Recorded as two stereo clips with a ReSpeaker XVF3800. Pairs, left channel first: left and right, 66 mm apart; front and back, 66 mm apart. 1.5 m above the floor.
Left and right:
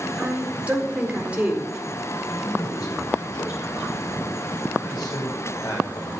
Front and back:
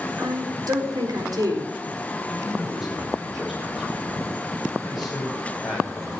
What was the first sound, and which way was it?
A woman speaking, 160° right.